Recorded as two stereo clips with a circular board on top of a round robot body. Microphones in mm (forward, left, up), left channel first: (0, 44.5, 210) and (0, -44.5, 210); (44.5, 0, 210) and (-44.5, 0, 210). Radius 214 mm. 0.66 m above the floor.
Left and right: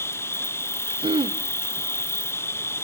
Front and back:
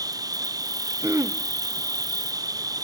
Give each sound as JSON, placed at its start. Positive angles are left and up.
{"t": 0.0, "sound": "an insect", "azimuth_deg": 145, "distance_m": 0.7}
{"t": 1.0, "sound": "throat clearing", "azimuth_deg": -115, "distance_m": 0.8}